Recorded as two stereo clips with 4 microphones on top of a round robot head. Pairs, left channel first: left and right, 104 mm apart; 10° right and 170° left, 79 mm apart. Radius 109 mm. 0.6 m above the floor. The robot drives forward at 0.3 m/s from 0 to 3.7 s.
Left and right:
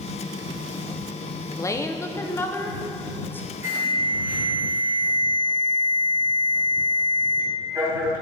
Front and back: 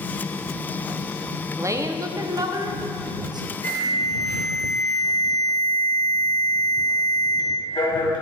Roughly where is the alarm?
Ahead right.